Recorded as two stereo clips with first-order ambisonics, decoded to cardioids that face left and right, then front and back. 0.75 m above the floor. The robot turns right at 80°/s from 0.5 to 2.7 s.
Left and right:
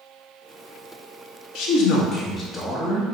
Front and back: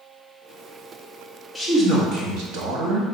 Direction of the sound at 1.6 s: 90° left.